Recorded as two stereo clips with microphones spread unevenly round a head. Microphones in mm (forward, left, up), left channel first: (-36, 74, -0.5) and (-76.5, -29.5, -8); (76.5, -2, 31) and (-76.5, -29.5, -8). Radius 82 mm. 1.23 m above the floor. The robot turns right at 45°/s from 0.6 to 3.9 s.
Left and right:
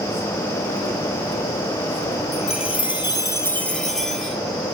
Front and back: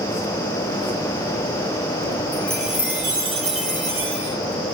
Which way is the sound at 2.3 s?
85° left.